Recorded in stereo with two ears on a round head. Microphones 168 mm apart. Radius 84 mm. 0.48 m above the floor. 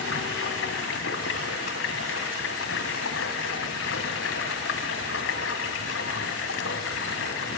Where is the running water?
75° left (ahead or behind), 3 m.